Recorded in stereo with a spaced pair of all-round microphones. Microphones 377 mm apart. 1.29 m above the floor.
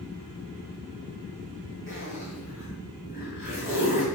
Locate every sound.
1.9 s a zipper: 30° left (ahead or behind), 3 m